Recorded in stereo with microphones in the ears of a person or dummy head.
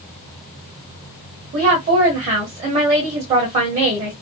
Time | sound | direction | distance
1.5 | a woman speaking | 35° right (ahead or behind) | 1.5 m